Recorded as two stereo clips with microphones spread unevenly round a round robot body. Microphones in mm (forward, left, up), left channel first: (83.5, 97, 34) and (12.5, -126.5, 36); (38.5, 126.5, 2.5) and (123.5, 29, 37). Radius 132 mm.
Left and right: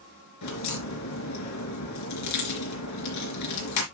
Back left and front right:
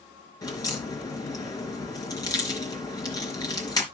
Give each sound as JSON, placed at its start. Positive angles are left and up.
{"t": 0.4, "sound": "a crack", "azimuth_deg": 70, "distance_m": 3.5}